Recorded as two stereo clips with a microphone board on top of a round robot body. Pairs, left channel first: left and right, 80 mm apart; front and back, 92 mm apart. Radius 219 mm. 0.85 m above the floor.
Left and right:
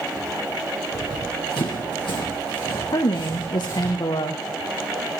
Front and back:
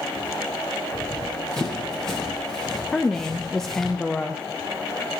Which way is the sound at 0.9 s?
80° left.